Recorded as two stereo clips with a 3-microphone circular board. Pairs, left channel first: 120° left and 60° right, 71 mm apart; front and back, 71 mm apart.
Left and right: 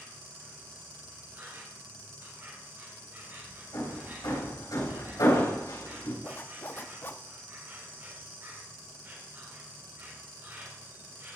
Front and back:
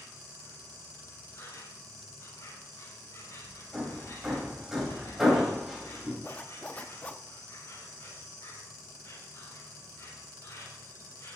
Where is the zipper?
65° left, 0.6 m.